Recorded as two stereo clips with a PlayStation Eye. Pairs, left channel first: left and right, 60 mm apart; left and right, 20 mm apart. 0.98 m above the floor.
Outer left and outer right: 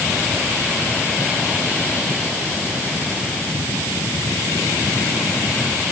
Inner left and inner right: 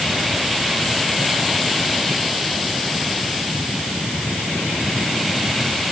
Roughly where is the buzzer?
No buzzer in this recording.